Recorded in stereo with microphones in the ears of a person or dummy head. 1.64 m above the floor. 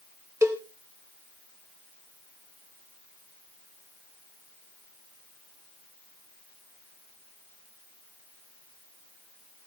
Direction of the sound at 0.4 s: 10° right (ahead or behind).